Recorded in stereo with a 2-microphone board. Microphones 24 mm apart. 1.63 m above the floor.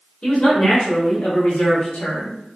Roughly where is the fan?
I don't hear a fan.